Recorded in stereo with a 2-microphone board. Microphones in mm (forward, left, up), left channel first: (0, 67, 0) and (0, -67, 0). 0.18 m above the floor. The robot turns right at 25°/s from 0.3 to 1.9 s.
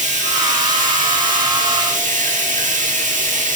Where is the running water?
115° right, 9.5 m; by 3.6 s 75° right, 9.5 m.